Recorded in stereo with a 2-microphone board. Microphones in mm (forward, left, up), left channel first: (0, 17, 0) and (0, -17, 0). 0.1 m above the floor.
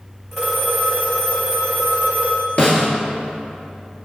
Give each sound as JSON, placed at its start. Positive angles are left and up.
{"t": 0.3, "sound": "a phone ringing", "side_deg": 15, "distance_m": 4.0}
{"t": 2.6, "sound": "a snare drum", "side_deg": 40, "distance_m": 2.5}